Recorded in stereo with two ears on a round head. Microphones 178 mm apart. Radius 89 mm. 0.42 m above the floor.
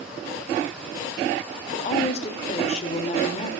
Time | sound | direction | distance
1.7 | a woman speaking | 35° left (ahead or behind) | 1.4 m